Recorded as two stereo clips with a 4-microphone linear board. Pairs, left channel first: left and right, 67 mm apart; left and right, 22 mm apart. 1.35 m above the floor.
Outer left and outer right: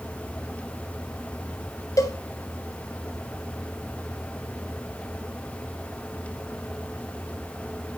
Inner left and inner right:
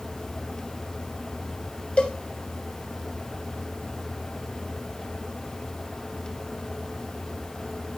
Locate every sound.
2.0 s a cowbell: 55° left (ahead or behind), 4.5 m